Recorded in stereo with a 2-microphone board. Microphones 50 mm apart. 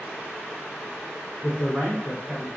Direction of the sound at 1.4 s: 20° left (ahead or behind).